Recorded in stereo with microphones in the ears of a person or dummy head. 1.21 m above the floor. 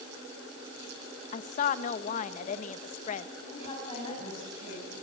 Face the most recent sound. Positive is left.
turn(degrees=30)  # may be behind; listen again after turning